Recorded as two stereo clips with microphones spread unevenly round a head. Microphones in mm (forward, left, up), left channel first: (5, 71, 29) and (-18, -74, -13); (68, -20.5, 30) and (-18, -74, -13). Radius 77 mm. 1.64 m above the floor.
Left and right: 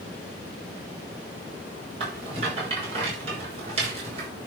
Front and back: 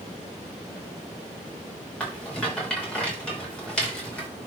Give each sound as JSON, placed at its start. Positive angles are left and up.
{"t": 2.0, "sound": "a rattle", "azimuth_deg": -45, "distance_m": 6.0}